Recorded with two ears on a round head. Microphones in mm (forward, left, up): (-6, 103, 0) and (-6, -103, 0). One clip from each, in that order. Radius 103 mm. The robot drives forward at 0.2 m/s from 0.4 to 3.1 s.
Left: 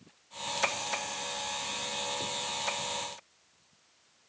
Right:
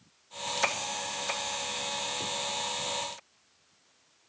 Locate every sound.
Only background noise.